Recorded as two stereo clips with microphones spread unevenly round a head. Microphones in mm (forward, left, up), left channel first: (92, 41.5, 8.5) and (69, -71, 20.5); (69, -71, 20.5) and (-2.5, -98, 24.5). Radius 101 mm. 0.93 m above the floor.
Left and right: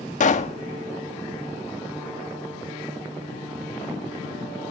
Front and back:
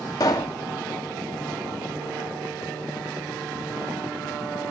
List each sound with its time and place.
0.2 s a pop: 80° left, 1.3 m